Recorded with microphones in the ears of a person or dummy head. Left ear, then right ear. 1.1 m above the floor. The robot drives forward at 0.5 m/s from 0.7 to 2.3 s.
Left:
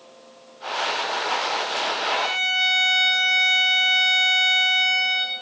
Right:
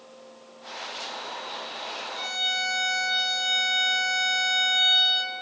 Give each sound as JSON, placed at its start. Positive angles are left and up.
{"t": 2.1, "sound": "a violin", "side_deg": -60, "distance_m": 1.2}